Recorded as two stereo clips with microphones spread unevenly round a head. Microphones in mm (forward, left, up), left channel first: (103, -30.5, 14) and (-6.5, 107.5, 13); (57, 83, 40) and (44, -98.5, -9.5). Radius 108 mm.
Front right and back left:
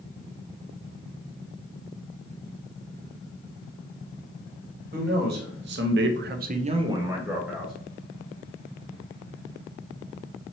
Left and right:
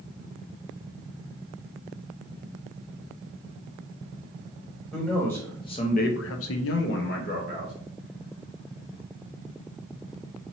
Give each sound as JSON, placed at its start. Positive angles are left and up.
{"t": 4.9, "sound": "a man speaking", "azimuth_deg": 180, "distance_m": 1.3}